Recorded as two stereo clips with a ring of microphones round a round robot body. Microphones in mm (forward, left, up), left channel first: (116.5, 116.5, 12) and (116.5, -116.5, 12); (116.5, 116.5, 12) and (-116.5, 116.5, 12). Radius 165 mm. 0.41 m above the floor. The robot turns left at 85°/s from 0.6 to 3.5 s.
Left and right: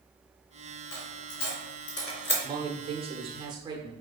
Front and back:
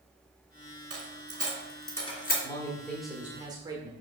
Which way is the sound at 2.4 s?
40° right.